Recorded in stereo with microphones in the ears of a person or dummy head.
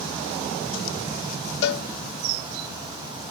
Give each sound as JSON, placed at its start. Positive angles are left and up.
{"t": 1.6, "sound": "a cowbell", "side_deg": 70, "distance_m": 0.6}